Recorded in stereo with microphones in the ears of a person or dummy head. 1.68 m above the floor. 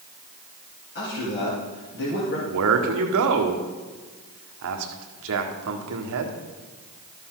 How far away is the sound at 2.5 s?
About 1.4 m.